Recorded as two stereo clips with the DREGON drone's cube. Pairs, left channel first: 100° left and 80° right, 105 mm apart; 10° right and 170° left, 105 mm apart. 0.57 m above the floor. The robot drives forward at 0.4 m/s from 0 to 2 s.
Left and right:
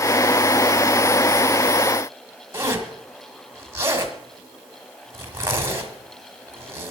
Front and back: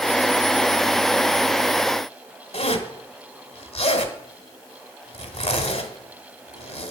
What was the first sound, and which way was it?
A zipper, 15° right.